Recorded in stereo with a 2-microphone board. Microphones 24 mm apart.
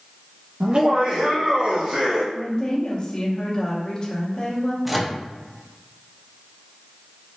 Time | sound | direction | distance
0.6 | laughter | 60° right (ahead or behind) | 0.9 m
2.3 | a woman speaking | 40° left (ahead or behind) | 1.6 m
4.8 | a microwave | centre (ahead or behind) | 0.6 m